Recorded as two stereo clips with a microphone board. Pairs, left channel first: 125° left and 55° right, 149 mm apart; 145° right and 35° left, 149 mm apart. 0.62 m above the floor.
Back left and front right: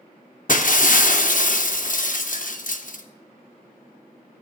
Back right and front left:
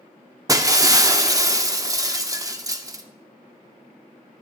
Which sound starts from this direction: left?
Breaking glass, at 0.5 s.